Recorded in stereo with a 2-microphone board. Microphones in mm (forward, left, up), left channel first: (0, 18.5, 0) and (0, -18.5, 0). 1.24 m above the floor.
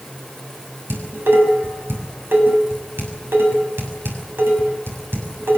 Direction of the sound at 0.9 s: 85° right.